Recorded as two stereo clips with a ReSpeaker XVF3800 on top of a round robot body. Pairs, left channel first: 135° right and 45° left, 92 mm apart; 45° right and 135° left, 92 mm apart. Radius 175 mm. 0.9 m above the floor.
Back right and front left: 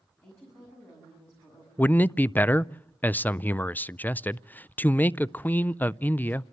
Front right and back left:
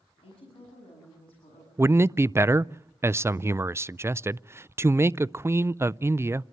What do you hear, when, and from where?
0.2 s a woman speaking: 70° right, 7 m
1.8 s a man speaking: 170° left, 0.5 m